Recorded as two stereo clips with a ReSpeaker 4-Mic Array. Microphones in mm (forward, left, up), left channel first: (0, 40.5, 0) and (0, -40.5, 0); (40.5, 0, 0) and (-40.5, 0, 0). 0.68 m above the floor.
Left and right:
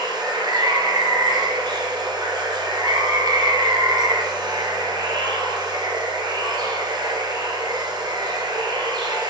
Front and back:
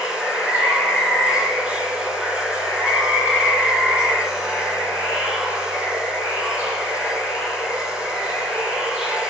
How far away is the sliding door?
No sliding door in this recording.